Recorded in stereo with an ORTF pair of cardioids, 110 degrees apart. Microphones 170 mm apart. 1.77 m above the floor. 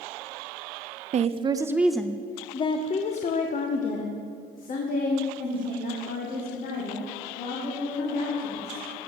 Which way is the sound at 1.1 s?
45° right.